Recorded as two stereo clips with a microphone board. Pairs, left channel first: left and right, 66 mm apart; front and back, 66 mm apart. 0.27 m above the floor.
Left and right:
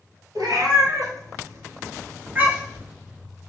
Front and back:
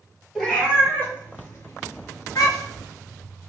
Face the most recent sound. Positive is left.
turn(degrees=-15)